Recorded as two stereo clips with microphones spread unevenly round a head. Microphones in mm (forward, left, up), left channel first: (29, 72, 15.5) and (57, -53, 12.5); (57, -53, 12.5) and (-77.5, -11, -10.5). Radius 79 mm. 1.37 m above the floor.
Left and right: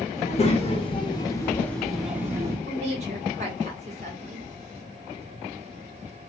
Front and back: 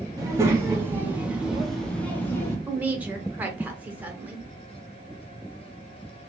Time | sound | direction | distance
0.2 | a child speaking | 90° left | 1.1 m
2.7 | a woman speaking | 120° right | 1.1 m